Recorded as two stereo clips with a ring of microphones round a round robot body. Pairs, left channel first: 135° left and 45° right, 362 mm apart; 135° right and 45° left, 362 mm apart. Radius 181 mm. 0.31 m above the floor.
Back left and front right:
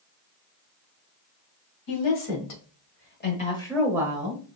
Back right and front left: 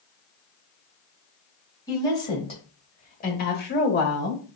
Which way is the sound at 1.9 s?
145° left.